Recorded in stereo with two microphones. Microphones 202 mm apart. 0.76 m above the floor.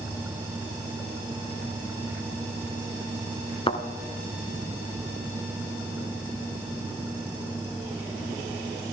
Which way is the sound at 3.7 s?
30° left (ahead or behind).